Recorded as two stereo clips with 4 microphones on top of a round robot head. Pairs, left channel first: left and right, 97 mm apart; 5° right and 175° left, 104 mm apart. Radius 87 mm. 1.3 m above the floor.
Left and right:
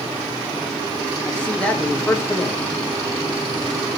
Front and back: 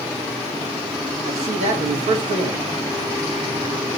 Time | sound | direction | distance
1.3 | a man speaking | 165° left | 3 m